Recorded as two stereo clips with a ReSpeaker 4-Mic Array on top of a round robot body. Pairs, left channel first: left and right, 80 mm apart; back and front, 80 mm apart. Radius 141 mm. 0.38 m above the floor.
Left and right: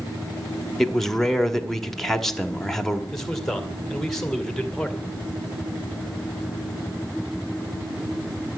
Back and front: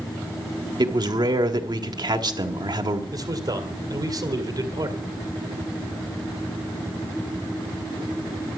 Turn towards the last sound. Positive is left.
turn(degrees=5)